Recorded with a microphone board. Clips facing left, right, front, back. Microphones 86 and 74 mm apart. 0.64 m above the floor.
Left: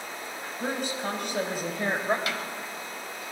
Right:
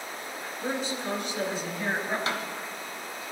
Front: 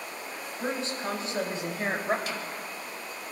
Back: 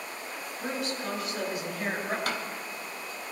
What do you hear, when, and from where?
0.6 s a woman speaking: 60° left, 4.5 m; by 2.2 s 55° left, 3 m
2.3 s a snare drum: 150° right, 1.5 m